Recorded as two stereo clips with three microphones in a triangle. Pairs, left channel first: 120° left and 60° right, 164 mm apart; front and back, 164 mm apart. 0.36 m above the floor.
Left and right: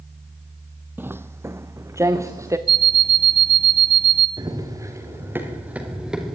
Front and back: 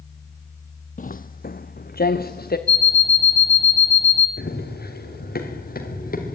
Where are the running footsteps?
5° left, 4.5 m; by 6.3 s 25° left, 5 m.